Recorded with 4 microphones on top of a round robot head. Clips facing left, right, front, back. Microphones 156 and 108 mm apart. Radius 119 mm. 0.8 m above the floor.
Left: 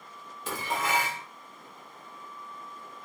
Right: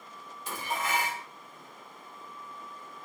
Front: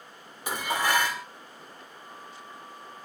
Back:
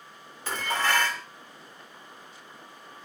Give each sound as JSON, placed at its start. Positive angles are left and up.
{"t": 0.5, "sound": "dishes clattering", "azimuth_deg": 75, "distance_m": 2.0}